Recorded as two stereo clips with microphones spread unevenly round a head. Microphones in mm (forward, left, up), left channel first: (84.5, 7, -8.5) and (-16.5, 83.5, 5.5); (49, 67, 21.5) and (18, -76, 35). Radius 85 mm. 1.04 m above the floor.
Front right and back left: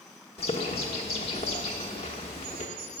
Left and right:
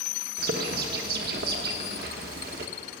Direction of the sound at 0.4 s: 95° right.